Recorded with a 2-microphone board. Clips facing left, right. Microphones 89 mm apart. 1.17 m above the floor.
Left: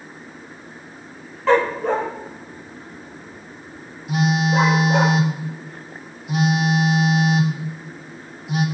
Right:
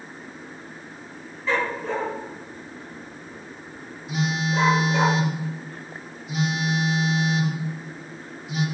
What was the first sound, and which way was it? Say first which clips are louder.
A dog barking: left 8 dB; 65° left (ahead or behind).